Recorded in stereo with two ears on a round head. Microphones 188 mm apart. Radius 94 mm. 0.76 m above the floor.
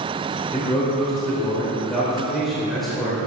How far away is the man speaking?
About 2.5 m.